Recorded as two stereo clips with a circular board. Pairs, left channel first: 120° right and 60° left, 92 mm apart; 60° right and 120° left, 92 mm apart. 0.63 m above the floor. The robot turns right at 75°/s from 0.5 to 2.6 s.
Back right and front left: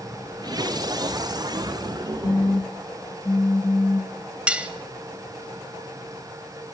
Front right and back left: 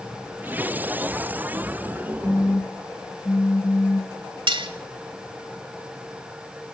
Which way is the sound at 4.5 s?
135° left.